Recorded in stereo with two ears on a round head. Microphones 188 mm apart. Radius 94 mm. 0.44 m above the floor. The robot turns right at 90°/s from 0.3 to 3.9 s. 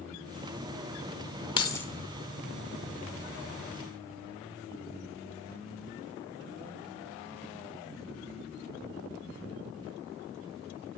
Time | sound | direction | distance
1.6 | keys jangling | 25° left (ahead or behind) | 1.0 m